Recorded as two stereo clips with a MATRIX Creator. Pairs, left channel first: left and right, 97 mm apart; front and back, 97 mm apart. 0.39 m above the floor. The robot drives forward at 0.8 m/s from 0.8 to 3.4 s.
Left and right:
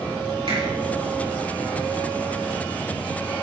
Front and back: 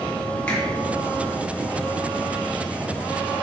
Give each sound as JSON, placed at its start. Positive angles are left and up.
{"t": 0.5, "sound": "a finger snap", "azimuth_deg": -80, "distance_m": 5.0}